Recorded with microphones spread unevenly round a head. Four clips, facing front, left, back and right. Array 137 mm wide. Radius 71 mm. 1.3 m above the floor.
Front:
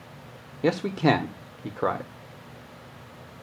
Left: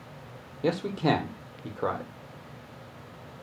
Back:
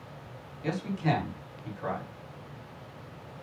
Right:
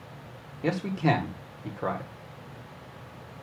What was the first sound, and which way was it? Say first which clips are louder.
A man speaking: even, front 8 dB; 10° left.